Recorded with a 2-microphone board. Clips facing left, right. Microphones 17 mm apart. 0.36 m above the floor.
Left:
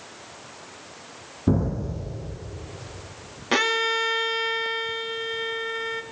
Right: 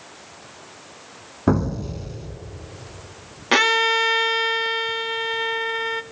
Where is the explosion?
55° right (ahead or behind), 2.0 m.